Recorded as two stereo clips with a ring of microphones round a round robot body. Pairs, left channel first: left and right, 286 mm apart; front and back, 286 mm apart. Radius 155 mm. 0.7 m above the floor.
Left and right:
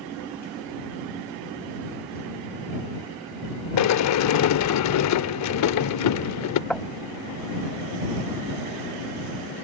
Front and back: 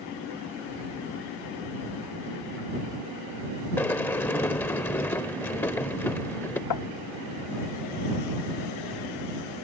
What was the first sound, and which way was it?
A sliding door, 80° left.